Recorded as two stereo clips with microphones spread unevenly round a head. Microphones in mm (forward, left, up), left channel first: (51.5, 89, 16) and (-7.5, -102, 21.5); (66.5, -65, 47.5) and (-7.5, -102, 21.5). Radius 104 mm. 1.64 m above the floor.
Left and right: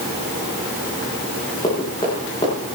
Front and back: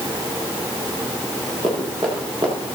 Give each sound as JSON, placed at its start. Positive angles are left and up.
{"t": 1.6, "sound": "running footsteps", "azimuth_deg": 145, "distance_m": 8.5}